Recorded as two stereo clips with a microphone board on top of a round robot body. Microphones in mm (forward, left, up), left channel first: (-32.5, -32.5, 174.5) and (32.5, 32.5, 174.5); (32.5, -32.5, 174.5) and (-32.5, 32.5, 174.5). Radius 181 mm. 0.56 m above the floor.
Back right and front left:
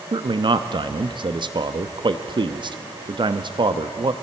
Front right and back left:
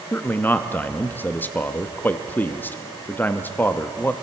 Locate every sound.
0.1 s a man speaking: 25° left, 0.9 m